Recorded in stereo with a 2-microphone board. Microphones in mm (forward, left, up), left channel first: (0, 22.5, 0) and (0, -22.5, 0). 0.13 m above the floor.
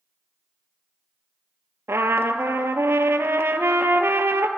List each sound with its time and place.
1.9 s a trumpet: 70° right (ahead or behind), 0.6 m